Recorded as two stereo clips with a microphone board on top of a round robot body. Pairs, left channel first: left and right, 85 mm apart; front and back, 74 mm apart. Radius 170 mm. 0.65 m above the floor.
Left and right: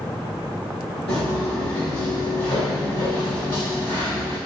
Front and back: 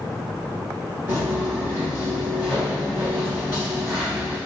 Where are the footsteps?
105° left, 1.1 m; by 4.4 s 100° left, 3.5 m.